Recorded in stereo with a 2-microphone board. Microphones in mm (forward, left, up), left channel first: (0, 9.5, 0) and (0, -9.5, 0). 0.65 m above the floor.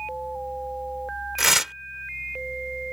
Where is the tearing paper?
20° right (ahead or behind).